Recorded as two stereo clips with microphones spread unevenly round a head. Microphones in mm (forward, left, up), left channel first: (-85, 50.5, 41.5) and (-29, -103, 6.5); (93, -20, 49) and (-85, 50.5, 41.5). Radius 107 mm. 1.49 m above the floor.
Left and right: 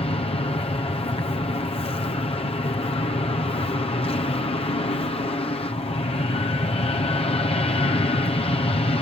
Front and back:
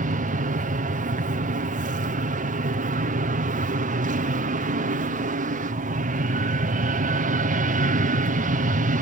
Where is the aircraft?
165° left.